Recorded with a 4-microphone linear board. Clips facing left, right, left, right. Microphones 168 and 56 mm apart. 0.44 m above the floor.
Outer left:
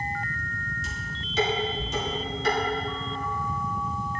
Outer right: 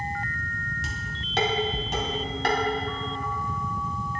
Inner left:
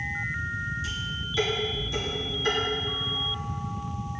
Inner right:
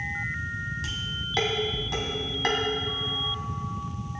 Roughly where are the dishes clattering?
Right.